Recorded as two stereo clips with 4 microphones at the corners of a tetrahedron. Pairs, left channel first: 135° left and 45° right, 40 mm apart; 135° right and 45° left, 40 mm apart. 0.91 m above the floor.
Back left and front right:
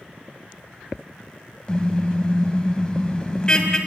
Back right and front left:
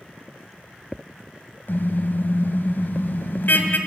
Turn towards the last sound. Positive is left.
turn(degrees=-160)